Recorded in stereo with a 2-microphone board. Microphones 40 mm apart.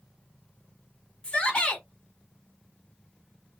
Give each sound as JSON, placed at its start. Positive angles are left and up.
{"t": 1.2, "sound": "a shout", "side_deg": 30, "distance_m": 1.3}